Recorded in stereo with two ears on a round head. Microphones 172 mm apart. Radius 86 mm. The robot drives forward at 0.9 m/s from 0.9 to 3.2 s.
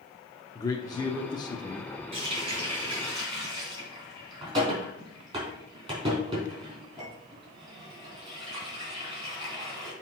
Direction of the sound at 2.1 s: 30° right (ahead or behind).